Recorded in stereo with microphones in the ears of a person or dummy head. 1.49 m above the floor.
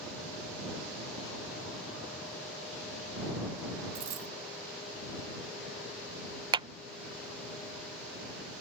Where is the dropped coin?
35° right (ahead or behind).